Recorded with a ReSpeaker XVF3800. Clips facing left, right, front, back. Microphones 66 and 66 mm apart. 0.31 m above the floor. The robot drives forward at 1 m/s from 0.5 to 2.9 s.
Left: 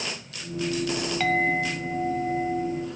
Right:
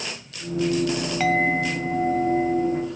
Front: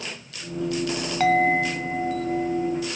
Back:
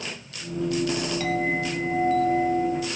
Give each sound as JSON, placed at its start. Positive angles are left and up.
{"t": 1.2, "sound": "a clink", "azimuth_deg": -10, "distance_m": 0.9}